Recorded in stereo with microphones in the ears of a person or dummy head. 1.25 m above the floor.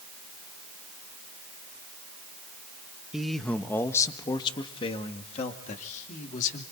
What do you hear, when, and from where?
3.1 s a man speaking: centre (ahead or behind), 1.0 m; by 6.6 s 45° left (ahead or behind), 2.5 m